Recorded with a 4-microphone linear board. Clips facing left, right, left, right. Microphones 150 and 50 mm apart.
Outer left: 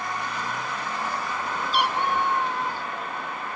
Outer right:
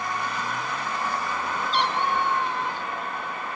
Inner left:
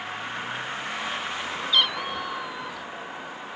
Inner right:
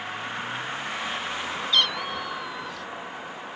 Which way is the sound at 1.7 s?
10° left (ahead or behind).